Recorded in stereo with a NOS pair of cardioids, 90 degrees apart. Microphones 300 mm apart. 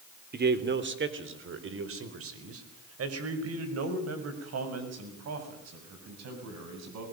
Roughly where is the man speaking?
Ahead right.